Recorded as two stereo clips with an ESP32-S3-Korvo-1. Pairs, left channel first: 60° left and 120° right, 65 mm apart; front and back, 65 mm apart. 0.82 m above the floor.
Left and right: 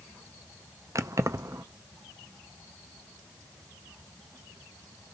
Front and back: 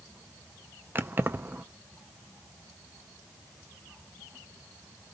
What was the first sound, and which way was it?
Keys jangling, 130° right.